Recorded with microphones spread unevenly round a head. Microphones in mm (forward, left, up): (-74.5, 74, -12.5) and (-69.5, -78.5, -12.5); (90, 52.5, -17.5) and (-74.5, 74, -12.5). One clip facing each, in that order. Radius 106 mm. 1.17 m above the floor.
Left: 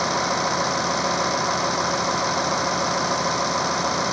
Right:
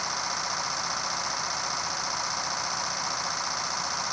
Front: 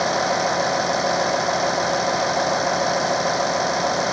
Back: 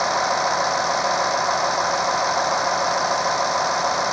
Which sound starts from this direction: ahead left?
A vehicle, at 0.0 s.